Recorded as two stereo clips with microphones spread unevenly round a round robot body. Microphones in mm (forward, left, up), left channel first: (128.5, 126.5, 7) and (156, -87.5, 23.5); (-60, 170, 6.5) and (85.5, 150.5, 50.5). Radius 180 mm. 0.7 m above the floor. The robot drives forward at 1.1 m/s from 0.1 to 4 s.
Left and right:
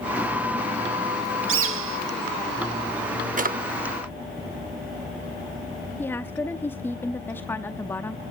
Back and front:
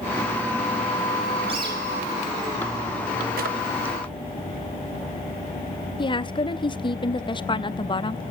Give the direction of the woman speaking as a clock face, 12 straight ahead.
6 o'clock.